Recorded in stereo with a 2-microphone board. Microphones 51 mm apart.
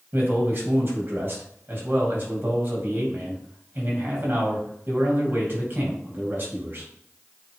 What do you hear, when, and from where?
0.1 s a man speaking: 45° right (ahead or behind), 3.5 m